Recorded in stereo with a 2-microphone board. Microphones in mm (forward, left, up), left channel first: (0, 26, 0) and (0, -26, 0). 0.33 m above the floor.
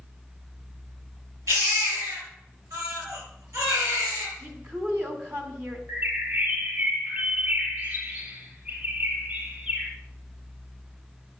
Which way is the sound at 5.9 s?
35° right (ahead or behind).